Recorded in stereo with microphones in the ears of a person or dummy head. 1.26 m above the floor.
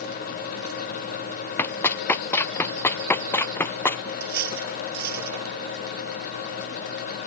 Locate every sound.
1.6 s running footsteps: 10° left (ahead or behind); by 4.0 s 15° left (ahead or behind)
4.2 s cutlery clinking: 60° right (ahead or behind)